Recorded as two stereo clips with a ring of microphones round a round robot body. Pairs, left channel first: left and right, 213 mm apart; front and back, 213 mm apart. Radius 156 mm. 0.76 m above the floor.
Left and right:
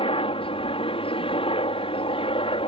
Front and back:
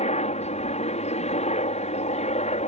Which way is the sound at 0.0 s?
40° left.